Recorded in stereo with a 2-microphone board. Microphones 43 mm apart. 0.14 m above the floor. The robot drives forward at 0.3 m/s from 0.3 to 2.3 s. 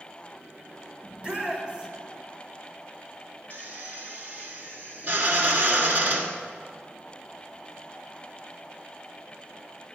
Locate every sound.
1.0 s a shout: 25° right (ahead or behind), 2 m; by 1.9 s 30° right (ahead or behind), 2.0 m
3.5 s a drill: 45° right (ahead or behind), 1.1 m